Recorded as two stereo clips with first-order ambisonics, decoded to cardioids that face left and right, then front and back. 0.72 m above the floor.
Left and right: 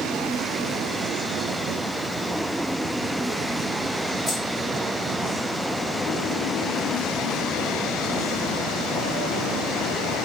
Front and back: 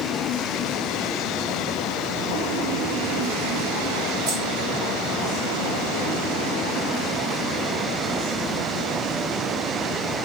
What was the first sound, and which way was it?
Keys jangling, 175° right.